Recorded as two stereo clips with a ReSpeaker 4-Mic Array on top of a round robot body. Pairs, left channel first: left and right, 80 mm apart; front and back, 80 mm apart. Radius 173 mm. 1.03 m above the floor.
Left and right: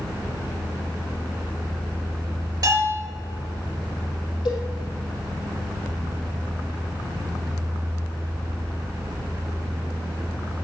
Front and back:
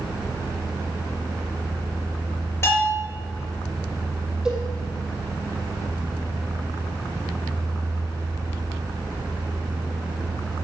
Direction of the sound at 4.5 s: 105° left.